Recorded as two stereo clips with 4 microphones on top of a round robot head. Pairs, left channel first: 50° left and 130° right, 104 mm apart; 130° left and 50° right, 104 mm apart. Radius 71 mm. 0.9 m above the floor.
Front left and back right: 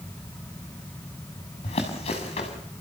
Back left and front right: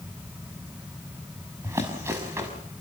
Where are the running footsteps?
15° left, 6.5 m.